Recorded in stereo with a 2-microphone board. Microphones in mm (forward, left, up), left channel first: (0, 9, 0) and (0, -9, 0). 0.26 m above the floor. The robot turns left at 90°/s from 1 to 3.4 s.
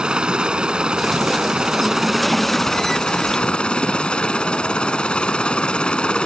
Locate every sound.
0.0 s a helicopter: 60° right; by 6.3 s 85° left